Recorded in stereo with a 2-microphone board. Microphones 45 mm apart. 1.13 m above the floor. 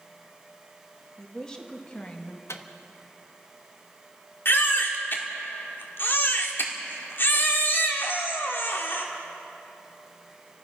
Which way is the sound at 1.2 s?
15° left (ahead or behind).